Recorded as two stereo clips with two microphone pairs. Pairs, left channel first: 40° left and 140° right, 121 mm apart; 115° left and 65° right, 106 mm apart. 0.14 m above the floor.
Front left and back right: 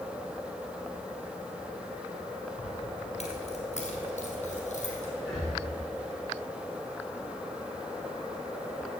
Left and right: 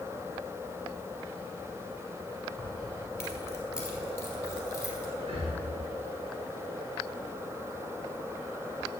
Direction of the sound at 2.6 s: 55° left.